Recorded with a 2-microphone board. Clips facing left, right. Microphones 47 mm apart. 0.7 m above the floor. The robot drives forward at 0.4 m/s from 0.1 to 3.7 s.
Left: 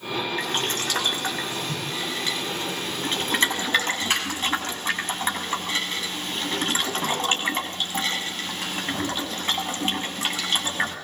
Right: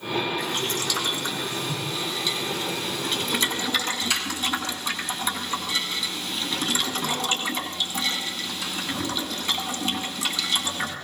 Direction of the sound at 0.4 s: 50° left (ahead or behind).